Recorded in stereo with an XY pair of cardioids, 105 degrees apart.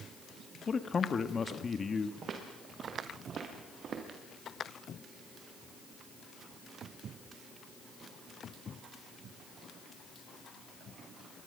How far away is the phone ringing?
No phone ringing in this recording.